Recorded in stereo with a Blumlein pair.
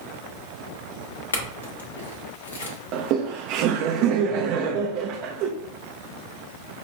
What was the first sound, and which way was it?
A clink, 70° left.